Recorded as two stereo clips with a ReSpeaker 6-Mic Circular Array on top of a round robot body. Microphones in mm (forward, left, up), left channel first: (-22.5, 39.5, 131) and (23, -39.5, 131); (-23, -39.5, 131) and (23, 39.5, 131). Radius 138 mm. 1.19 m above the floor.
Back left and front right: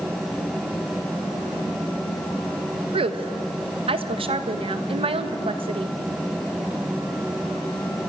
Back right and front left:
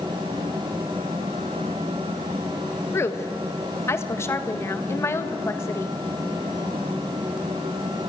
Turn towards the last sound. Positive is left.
turn(degrees=-60)